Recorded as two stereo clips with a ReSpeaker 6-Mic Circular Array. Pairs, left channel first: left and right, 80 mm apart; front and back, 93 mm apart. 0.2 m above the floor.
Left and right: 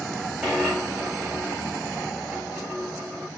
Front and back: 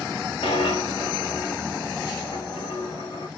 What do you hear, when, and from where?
0.4 s a dropped coin: 5° right, 5.5 m